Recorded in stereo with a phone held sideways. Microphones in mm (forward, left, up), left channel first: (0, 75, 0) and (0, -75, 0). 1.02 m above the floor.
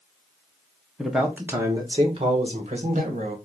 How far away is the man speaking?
About 0.9 m.